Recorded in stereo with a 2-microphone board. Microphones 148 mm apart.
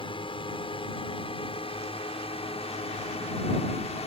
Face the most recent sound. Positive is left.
turn(degrees=45)  # may be behind; listen again after turning